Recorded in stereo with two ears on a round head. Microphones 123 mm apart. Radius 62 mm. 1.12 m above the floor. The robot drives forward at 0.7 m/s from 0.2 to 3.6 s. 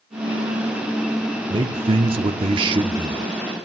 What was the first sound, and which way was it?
A man speaking, 30° right (ahead or behind).